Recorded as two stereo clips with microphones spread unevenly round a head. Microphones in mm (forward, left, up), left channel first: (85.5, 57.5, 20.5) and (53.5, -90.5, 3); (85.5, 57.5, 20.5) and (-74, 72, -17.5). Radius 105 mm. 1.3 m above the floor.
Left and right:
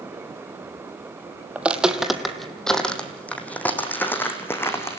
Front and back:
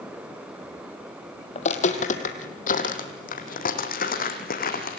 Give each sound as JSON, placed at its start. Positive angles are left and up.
{"t": 1.6, "sound": "footsteps", "azimuth_deg": -15, "distance_m": 2.0}